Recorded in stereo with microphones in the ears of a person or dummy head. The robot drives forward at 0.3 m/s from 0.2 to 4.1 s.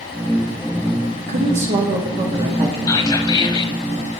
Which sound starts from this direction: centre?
Whispering, at 2.9 s.